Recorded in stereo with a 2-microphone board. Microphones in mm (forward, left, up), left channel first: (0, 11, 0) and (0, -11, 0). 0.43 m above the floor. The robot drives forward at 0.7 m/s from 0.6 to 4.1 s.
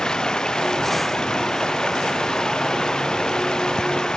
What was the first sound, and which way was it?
Running water, 35° left (ahead or behind).